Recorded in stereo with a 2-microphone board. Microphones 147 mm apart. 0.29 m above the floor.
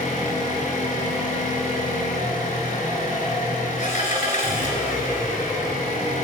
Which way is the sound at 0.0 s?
55° left (ahead or behind).